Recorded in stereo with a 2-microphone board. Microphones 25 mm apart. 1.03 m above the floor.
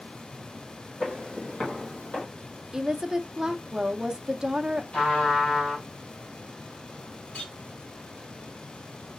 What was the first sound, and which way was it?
Footsteps, 55° left (ahead or behind).